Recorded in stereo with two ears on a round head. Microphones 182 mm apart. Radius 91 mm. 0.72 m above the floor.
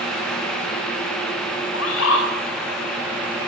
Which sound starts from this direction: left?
A bird, at 1.7 s.